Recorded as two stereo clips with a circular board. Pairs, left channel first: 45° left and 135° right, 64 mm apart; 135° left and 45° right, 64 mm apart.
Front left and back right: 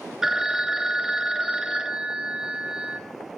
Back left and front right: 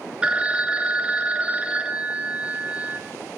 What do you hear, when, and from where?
0.2 s a phone ringing: 75° right, 0.6 m